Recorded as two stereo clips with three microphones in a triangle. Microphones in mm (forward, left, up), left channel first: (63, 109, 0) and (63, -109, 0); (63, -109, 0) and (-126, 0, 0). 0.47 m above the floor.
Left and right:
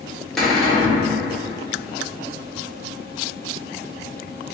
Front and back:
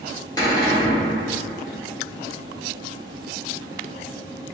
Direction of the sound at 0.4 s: 5° left.